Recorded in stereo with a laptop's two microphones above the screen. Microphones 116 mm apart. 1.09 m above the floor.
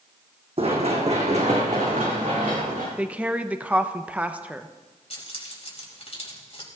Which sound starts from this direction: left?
Keys jangling, at 5.1 s.